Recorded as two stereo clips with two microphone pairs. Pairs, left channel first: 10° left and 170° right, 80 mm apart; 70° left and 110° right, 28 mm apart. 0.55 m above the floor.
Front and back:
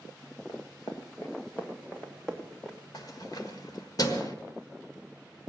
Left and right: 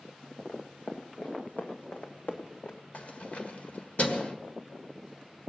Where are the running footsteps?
40° left, 2 m; by 2.8 s 100° left, 2.5 m.